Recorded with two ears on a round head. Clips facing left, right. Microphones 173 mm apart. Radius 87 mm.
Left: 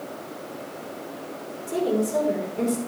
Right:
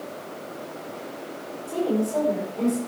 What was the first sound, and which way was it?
A woman speaking, 25° left (ahead or behind).